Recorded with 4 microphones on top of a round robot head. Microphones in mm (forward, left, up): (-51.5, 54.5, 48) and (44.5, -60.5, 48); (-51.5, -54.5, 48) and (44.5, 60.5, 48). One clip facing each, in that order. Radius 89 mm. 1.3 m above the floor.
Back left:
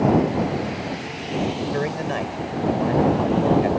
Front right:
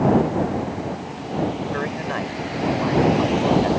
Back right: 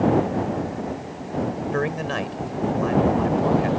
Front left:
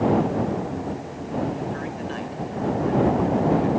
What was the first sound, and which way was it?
A man speaking, 160° right.